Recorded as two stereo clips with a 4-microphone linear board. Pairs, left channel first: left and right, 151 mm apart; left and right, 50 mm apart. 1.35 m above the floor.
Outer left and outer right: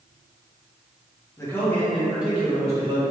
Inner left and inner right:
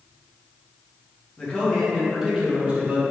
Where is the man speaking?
20° left (ahead or behind), 1.4 m; by 3.0 s 30° right (ahead or behind), 1.6 m.